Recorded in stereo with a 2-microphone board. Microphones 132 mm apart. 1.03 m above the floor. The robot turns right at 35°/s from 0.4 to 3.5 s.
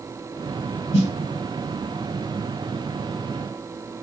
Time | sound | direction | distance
0.9 | a snare drum | 50° left (ahead or behind) | 2 m